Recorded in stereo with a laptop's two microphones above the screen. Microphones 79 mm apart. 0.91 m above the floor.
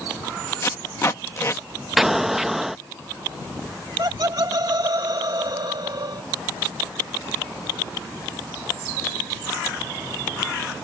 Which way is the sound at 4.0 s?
55° right (ahead or behind).